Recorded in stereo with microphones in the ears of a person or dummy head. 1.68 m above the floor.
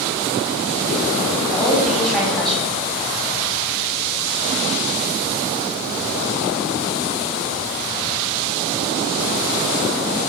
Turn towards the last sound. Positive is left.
turn(degrees=-5)  # may be behind; listen again after turning